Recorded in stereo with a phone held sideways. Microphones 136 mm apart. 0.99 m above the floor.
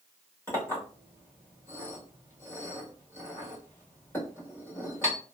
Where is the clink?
20° left (ahead or behind), 1.6 m.